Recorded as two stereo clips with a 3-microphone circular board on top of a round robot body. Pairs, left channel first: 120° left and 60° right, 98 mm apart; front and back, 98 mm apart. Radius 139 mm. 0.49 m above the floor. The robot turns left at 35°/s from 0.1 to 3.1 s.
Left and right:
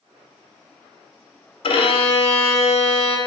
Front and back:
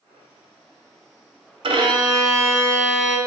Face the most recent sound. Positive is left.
turn(degrees=95)